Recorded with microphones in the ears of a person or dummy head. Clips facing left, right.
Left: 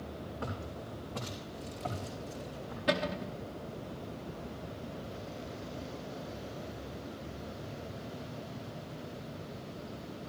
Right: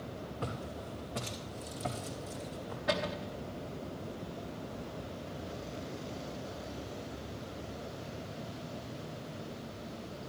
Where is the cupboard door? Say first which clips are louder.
Left 2 dB; 35° left (ahead or behind), 1.0 m.